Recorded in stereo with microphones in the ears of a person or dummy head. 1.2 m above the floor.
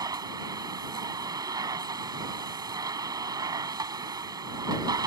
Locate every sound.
0.0 s a machine running: 25° right (ahead or behind)